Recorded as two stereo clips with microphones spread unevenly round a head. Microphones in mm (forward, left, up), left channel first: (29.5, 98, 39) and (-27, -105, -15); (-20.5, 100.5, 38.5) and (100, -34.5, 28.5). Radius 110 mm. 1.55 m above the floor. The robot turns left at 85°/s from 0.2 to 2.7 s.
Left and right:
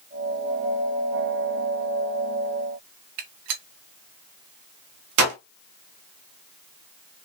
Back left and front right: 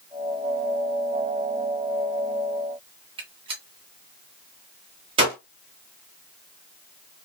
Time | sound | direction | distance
3.2 | a gunshot | 115° right | 1.4 m